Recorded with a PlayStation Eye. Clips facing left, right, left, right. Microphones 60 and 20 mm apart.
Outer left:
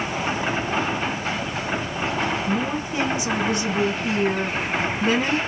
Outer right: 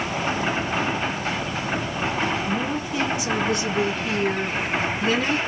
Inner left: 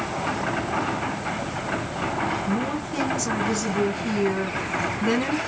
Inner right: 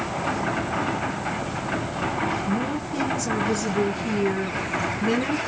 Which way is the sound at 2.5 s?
25° left (ahead or behind).